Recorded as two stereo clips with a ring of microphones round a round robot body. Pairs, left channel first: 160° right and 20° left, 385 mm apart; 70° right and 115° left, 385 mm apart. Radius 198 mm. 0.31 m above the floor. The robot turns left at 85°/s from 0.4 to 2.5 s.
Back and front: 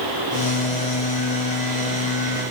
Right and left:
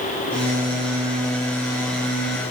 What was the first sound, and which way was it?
Only background noise.